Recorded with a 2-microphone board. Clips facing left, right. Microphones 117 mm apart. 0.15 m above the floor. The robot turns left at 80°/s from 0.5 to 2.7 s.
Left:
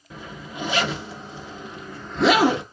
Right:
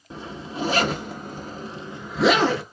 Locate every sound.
0.1 s a zipper: 30° right (ahead or behind), 0.9 m; by 2.6 s 25° left (ahead or behind), 0.9 m